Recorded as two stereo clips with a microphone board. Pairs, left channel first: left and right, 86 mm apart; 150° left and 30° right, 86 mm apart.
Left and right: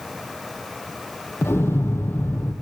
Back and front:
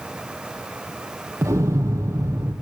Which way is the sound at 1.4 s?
25° left.